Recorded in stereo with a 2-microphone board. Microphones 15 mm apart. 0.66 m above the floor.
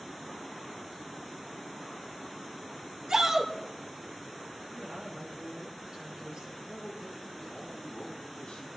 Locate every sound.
3.1 s a shout: 55° right (ahead or behind), 3 m
4.7 s a woman speaking: 40° right (ahead or behind), 7.5 m
6.6 s a man speaking: 65° left (ahead or behind), 4 m